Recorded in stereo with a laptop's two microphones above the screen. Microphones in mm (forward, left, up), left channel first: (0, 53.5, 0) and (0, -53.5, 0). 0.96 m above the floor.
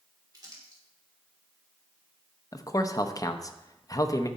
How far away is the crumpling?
About 2 m.